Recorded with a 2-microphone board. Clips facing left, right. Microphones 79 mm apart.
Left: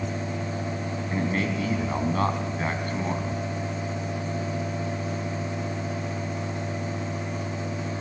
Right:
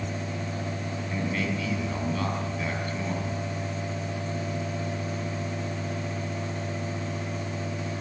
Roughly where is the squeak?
No squeak in this recording.